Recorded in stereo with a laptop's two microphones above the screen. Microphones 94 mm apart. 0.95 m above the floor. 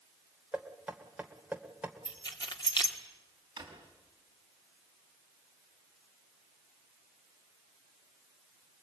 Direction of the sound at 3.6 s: 45° right (ahead or behind).